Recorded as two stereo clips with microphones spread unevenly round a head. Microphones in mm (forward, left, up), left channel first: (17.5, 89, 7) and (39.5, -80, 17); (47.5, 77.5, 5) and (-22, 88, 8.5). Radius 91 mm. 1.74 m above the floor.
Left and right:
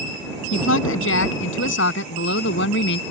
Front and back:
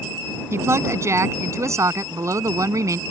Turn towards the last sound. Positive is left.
turn(degrees=135)